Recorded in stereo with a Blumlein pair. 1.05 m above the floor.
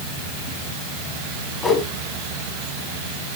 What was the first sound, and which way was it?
A whoosh, 10° left.